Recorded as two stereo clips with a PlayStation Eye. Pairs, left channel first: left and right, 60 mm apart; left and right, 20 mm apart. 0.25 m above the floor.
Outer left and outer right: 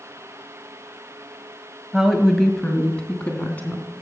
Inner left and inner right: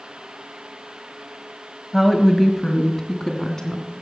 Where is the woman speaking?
10° right (ahead or behind), 1.2 m; by 3.9 s 25° left (ahead or behind), 2.5 m.